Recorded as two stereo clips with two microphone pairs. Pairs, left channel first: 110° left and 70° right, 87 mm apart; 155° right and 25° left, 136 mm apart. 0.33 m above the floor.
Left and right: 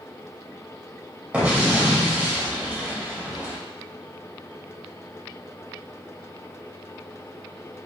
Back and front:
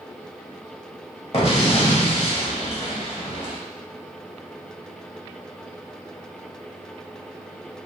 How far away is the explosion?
About 0.7 m.